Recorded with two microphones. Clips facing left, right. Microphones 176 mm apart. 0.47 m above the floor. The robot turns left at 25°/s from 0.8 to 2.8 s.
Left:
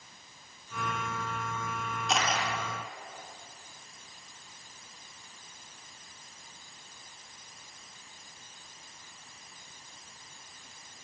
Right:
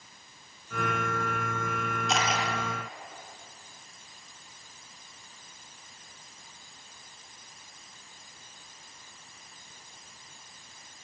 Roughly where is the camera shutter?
Centre.